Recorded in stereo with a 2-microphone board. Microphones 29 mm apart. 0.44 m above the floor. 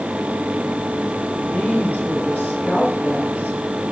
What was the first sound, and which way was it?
A woman speaking, 80° left.